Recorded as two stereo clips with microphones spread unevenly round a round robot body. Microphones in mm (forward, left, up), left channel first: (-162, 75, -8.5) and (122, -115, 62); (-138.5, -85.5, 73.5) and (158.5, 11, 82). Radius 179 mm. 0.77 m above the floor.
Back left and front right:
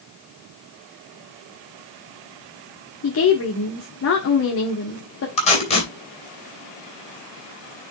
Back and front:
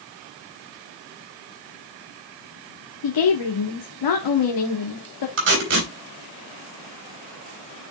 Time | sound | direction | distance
3.0 | a woman speaking | 170° right | 1.5 m
5.4 | tape being pulled | 75° left | 4 m